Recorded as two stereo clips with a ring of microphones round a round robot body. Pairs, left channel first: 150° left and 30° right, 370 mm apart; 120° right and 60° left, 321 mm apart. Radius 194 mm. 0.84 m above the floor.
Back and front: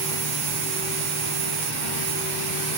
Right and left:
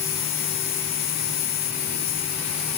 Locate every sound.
0.0 s an insect: 80° right